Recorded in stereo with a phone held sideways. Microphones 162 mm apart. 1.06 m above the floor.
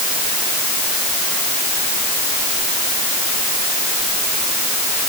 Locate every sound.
Only background noise.